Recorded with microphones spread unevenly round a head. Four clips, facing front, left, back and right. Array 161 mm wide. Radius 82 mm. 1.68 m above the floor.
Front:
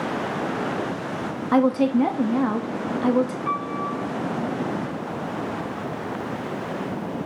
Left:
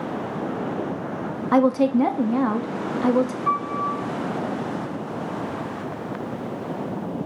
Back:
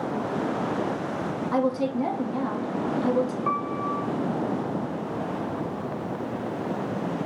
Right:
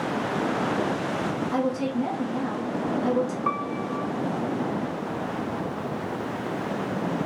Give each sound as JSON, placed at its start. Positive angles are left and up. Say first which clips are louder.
{"t": 1.5, "sound": "a woman speaking", "louder": "left 11 dB, front 7 dB", "azimuth_deg": 55, "distance_m": 0.6}
{"t": 3.5, "sound": "a piano", "louder": "left 4 dB, even", "azimuth_deg": -105, "distance_m": 1.2}